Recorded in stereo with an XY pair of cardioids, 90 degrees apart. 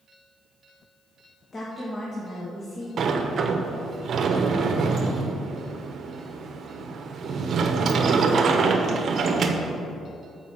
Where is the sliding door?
60° right, 0.9 m.